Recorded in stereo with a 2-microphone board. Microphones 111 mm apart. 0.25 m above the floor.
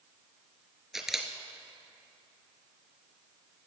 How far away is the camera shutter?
About 1.9 m.